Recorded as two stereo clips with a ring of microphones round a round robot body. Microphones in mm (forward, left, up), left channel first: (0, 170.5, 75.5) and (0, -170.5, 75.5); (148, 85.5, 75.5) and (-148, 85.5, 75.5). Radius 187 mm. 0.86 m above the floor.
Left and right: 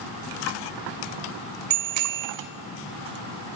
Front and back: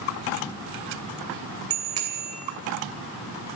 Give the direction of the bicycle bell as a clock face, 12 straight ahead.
4 o'clock.